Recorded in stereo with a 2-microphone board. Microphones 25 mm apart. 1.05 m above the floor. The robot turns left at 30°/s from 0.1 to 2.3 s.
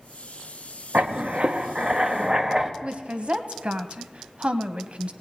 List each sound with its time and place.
0.9 s writing: 120° right, 0.8 m; by 2.7 s 160° right, 0.8 m
2.8 s a woman speaking: 50° right (ahead or behind), 1.0 m